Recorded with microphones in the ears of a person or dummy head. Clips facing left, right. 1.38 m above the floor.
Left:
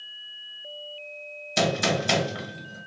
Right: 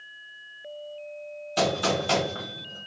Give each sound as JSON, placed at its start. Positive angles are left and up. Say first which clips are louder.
{"t": 1.6, "sound": "a gunshot", "louder": "even", "side_deg": 30, "distance_m": 1.4}